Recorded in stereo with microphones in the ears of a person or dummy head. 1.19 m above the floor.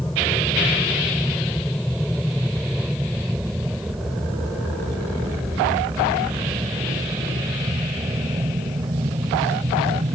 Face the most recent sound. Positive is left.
turn(degrees=-25)  # may be behind; listen again after turning